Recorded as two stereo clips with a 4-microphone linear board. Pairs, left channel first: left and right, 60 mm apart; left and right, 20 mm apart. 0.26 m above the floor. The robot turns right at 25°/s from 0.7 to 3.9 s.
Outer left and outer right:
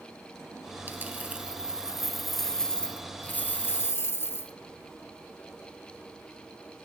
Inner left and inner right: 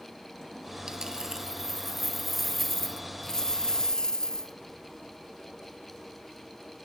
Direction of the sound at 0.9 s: 35° right.